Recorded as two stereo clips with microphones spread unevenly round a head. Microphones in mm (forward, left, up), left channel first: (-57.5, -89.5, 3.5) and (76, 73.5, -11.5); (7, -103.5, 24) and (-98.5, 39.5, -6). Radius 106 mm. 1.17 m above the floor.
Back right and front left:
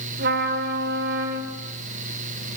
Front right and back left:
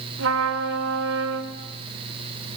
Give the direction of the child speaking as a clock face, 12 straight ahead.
I don't hear a child speaking.